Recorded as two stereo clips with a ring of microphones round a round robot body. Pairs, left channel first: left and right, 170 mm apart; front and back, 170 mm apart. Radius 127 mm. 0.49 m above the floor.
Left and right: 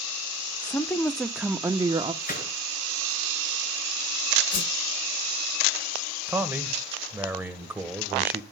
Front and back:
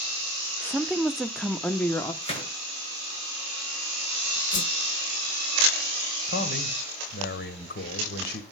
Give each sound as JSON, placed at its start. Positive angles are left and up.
{"t": 0.6, "sound": "a woman speaking", "azimuth_deg": 110, "distance_m": 0.9}
{"t": 2.2, "sound": "a gunshot", "azimuth_deg": 55, "distance_m": 9.5}
{"t": 4.5, "sound": "a whoosh", "azimuth_deg": 45, "distance_m": 0.5}
{"t": 6.3, "sound": "a man speaking", "azimuth_deg": -10, "distance_m": 2.5}